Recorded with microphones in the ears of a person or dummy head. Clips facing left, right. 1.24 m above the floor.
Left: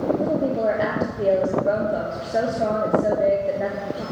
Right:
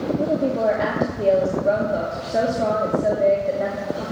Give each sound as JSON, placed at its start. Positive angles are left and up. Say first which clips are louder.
{"t": 0.2, "sound": "a woman speaking", "louder": "right 1 dB", "side_deg": 5, "distance_m": 1.4}